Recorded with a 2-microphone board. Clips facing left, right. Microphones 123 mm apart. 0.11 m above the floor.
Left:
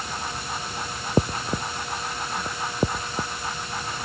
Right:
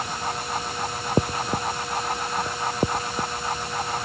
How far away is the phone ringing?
No phone ringing in this recording.